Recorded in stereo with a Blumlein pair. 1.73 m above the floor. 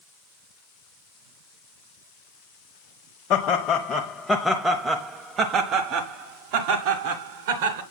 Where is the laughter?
35° left, 1.1 m; by 7.8 s 55° right, 2 m.